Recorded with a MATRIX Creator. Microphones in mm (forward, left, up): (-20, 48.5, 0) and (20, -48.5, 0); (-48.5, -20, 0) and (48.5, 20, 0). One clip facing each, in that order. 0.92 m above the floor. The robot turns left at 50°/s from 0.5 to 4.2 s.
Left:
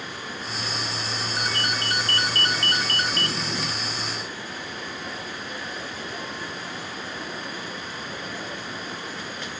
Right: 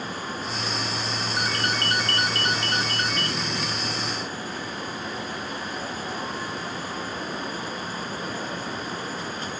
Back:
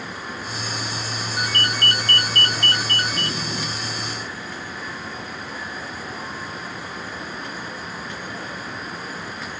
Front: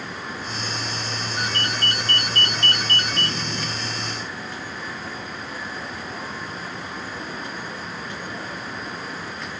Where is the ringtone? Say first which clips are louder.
Right 2 dB, back 2 dB; 145° right, 2.5 m; by 3.4 s 115° left, 2.5 m.